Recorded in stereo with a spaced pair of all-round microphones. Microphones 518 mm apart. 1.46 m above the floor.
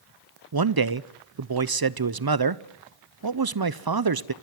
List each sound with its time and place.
0.5 s a man speaking: 45° right (ahead or behind), 0.7 m